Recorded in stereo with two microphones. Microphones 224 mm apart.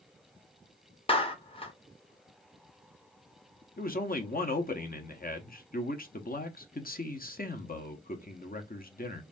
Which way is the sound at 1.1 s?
25° left (ahead or behind).